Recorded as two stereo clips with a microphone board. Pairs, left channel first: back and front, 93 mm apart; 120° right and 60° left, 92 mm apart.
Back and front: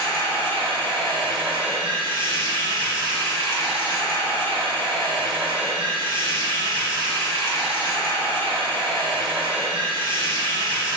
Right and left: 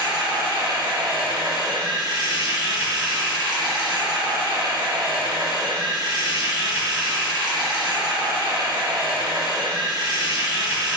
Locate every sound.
0.0 s running water: 15° left, 2 m